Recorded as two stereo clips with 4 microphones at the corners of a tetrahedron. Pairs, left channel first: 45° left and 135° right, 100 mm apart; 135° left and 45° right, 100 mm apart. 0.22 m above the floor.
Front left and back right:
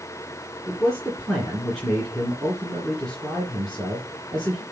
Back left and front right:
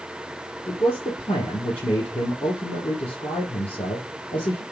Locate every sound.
0.7 s a man speaking: 130° left, 3.5 m